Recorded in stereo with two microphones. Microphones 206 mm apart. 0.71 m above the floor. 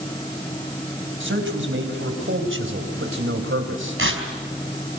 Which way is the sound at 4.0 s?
75° right (ahead or behind).